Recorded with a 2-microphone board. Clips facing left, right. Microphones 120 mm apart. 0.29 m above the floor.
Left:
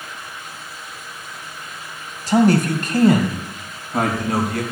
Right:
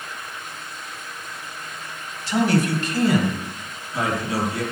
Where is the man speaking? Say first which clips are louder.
Left 5 dB; 45° left (ahead or behind), 2 m; by 4.6 s 60° left (ahead or behind), 3.5 m.